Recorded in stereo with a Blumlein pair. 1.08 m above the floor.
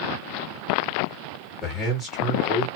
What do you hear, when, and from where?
1.6 s a man speaking: 10° left, 1.2 m